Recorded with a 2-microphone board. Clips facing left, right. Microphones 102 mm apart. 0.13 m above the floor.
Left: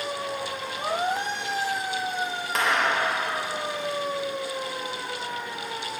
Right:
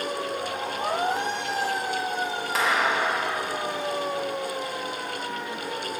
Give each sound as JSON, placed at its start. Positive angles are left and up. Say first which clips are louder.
{"t": 2.5, "sound": "a clap", "louder": "even", "side_deg": 0, "distance_m": 3.5}